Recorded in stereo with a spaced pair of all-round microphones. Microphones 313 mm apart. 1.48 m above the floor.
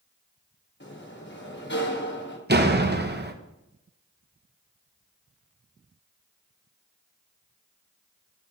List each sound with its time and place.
0.8 s a sliding door: 35° left (ahead or behind), 1.2 m
2.5 s a door slam: 35° right (ahead or behind), 0.7 m